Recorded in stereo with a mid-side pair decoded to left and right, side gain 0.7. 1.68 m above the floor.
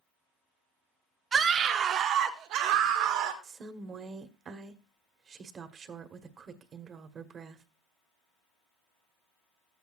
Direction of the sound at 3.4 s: 35° right.